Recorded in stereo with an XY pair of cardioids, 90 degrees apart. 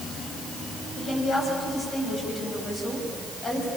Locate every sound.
1.0 s a woman speaking: 40° left, 9.5 m